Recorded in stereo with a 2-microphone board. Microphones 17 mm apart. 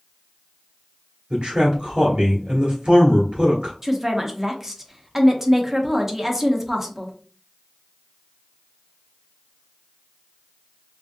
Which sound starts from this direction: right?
A man speaking, at 1.3 s.